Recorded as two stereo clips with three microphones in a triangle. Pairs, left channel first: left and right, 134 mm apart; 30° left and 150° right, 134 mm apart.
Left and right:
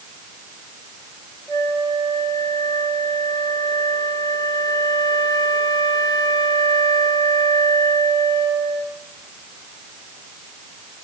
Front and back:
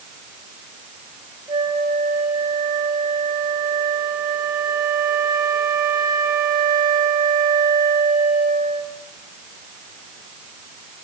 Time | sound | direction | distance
1.5 | a flute | 155° left | 5 m